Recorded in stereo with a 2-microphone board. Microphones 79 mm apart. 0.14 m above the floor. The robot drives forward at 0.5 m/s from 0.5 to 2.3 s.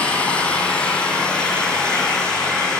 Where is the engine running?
15° left (ahead or behind), 1.9 m; by 2.8 s 10° left (ahead or behind), 3 m.